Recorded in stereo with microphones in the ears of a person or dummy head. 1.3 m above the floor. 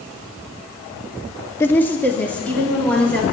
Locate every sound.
1.6 s a woman speaking: 10° left (ahead or behind), 0.5 m; by 3.2 s 5° left (ahead or behind), 2 m